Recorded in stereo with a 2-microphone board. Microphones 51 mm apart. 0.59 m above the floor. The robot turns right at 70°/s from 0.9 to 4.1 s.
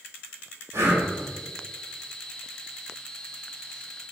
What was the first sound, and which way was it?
Breathing, 80° right.